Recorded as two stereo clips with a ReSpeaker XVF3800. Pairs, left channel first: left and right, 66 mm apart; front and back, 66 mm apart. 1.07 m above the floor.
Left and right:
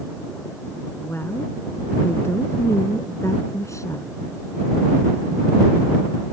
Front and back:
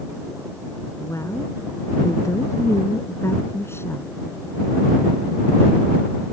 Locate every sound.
1.0 s a woman speaking: 35° left; by 4.1 s 50° left